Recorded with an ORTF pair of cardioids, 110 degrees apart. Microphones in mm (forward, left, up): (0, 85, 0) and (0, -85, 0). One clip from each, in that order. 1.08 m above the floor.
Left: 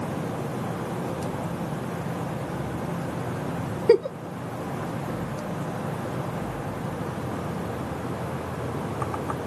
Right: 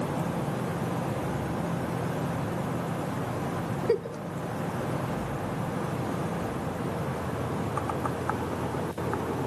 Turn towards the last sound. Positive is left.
turn(degrees=40)